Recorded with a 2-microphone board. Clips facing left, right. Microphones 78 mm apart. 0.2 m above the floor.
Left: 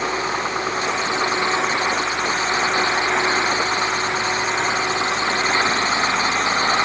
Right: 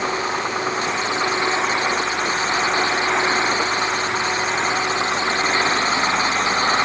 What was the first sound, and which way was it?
Only background noise.